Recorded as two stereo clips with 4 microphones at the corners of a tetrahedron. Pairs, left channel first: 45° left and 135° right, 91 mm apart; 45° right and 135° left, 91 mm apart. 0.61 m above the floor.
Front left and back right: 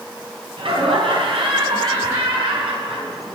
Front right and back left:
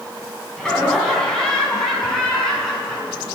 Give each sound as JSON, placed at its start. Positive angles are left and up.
{"t": 0.6, "sound": "laughter", "azimuth_deg": -130, "distance_m": 5.0}